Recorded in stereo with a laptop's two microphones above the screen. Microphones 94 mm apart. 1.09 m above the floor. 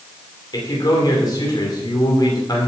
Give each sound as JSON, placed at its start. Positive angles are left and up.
{"t": 0.5, "sound": "a man speaking", "side_deg": 40, "distance_m": 3.0}